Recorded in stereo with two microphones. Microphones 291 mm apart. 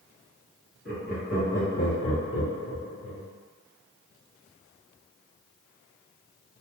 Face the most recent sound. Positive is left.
turn(degrees=55)  # may be behind; listen again after turning